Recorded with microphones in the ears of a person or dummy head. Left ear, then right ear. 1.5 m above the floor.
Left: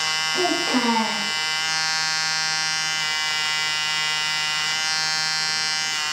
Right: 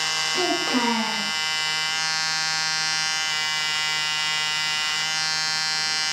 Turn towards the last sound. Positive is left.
turn(degrees=-5)  # may be behind; listen again after turning